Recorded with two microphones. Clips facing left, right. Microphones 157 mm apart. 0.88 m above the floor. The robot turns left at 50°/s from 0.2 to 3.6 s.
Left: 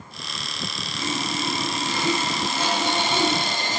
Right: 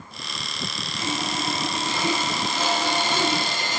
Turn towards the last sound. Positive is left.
turn(degrees=120)